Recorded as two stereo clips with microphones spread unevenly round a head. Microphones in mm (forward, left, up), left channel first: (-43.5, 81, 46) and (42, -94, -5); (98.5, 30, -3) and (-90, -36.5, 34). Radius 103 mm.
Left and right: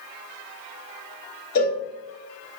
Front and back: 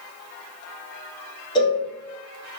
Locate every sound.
1.6 s a cowbell: 70° left, 1.1 m